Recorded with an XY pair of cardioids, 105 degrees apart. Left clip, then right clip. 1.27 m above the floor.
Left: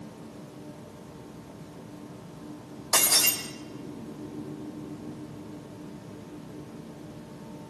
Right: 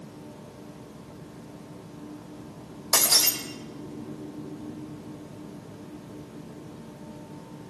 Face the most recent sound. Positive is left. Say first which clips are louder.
# right 1 dB
turn(degrees=-30)